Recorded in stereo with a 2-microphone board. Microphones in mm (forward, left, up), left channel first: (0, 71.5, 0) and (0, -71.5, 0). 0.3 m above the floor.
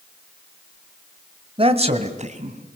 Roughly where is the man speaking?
Right.